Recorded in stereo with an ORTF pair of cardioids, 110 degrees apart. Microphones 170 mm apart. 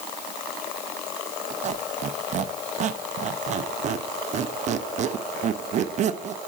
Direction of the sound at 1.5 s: 45° right.